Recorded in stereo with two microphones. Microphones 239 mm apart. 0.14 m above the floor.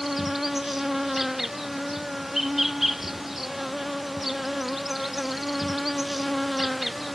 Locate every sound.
0.0 s an insect: centre (ahead or behind)